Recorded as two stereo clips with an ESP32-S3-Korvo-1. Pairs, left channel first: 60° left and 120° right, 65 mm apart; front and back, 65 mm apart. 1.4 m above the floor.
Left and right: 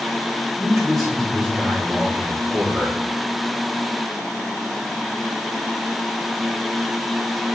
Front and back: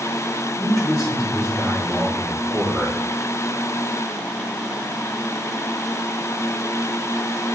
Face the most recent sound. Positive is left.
turn(degrees=-30)